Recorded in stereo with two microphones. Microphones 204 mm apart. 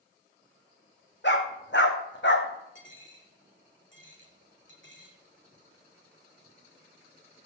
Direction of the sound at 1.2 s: 60° left (ahead or behind).